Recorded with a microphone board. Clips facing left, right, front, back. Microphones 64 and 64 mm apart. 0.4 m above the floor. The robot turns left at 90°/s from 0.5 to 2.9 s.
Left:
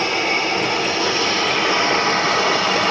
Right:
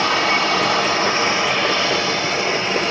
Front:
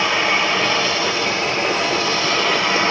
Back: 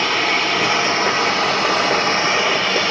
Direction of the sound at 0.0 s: 85° right.